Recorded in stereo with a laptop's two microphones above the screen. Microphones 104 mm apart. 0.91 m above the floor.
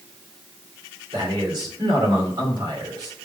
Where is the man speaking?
45° right (ahead or behind), 2.5 m.